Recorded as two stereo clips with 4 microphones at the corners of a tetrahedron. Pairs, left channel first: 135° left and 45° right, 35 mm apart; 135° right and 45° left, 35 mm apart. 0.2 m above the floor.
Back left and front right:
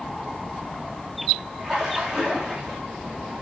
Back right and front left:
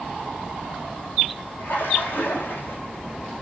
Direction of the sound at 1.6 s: 115° right.